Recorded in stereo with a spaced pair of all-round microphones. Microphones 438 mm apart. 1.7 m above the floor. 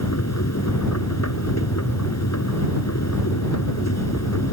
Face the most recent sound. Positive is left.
turn(degrees=35)  # may be behind; listen again after turning